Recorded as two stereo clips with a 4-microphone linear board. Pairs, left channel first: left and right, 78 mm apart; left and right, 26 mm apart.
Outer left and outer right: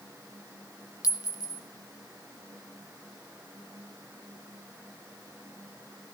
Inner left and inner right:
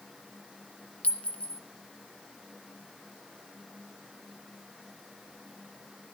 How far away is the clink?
About 1.0 m.